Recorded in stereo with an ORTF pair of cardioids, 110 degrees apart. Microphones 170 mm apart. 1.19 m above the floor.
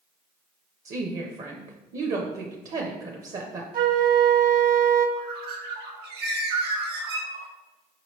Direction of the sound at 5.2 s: 70° right.